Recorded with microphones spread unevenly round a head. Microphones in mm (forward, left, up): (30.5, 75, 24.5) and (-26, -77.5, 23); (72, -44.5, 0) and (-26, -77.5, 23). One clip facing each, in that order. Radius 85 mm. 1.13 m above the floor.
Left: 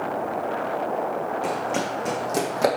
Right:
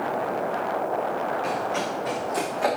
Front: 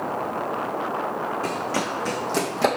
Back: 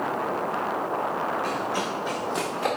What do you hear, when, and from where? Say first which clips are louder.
1.4 s running footsteps: left 1 dB, front 1 dB; 40° left, 3 m; by 2.7 s 35° left, 2.0 m